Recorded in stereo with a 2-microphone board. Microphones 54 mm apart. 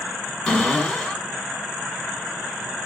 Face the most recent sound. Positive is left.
turn(degrees=10)  # may be behind; listen again after turning